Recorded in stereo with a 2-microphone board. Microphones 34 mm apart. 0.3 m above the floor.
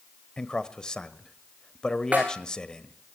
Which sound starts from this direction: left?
A man speaking, at 0.4 s.